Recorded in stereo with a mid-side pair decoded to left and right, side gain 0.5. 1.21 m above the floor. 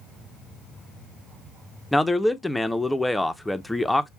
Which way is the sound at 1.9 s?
10° left.